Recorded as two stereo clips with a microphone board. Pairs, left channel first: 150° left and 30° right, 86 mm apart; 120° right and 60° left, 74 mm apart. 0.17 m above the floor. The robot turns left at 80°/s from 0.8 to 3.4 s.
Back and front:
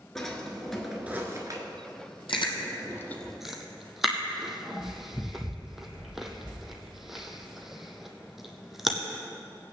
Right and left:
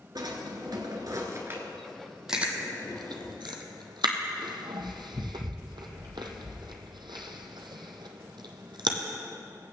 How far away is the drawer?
About 1.6 m.